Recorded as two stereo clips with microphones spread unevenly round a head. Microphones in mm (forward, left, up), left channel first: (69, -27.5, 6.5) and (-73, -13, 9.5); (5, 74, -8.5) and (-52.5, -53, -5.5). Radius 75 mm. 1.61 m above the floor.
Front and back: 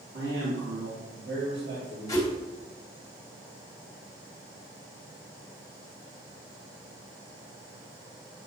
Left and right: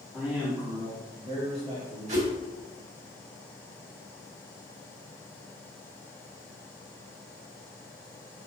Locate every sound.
0.1 s a man speaking: 160° left, 2.5 m; by 2.2 s 160° right, 4 m
2.1 s a whoosh: 70° right, 2 m